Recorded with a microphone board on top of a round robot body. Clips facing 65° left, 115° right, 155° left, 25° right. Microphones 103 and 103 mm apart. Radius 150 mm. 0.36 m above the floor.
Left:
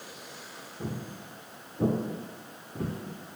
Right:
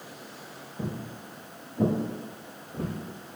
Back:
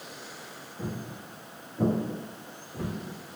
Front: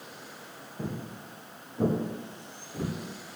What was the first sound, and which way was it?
Footsteps, 90° right.